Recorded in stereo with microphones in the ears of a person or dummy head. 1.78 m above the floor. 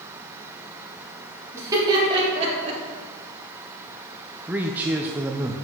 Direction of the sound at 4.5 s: 5° right (ahead or behind).